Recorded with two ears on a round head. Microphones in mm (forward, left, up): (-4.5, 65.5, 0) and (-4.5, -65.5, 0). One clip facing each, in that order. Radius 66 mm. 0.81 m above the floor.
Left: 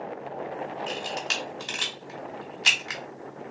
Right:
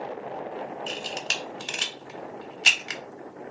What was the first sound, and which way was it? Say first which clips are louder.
A camera shutter: left 2 dB; 35° right (ahead or behind).